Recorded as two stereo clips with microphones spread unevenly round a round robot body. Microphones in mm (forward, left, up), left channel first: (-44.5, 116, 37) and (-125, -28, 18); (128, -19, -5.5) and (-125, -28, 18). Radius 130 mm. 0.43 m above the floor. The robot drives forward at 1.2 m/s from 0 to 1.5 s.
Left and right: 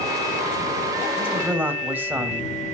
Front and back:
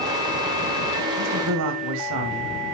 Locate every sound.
1.2 s a man speaking: 160° left, 2.5 m; by 2.5 s 165° left, 3 m